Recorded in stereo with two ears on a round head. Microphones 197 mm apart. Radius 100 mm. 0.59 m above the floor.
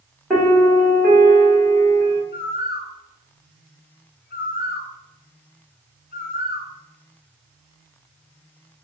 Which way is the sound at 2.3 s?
45° left (ahead or behind).